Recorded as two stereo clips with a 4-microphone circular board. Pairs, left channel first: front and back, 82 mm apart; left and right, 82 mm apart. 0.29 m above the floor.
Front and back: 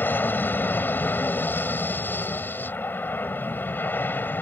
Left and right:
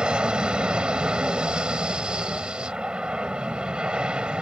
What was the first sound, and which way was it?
An aircraft, 25° right.